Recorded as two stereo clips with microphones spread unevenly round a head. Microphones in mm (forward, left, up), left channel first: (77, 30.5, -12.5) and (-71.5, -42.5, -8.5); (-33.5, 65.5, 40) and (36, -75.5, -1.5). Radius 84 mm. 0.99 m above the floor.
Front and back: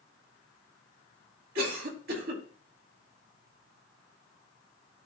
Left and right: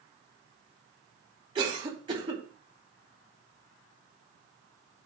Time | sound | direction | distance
1.6 | a cough | 120° right | 2 m